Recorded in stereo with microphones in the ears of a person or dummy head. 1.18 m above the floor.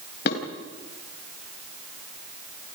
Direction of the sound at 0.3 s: 65° left (ahead or behind).